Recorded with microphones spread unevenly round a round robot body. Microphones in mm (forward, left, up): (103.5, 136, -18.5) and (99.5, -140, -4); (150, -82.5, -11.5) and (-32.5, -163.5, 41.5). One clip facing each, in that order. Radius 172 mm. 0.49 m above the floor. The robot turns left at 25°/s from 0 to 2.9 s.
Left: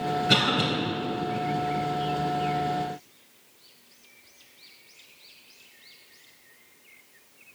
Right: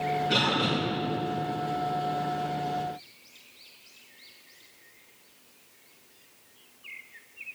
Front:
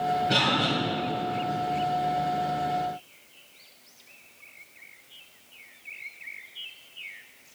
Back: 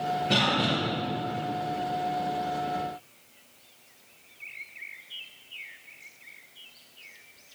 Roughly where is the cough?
Behind left.